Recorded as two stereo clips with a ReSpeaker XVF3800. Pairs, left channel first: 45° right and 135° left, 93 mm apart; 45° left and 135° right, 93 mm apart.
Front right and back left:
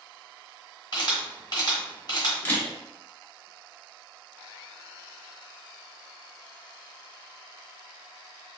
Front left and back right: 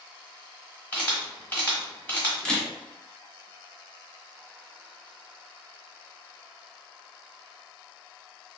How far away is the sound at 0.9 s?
About 1.1 m.